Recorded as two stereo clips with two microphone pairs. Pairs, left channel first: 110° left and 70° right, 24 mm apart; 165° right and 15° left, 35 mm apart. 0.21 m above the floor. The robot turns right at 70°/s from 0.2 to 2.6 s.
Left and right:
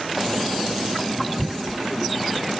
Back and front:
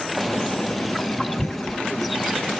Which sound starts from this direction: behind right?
Tearing paper, at 1.4 s.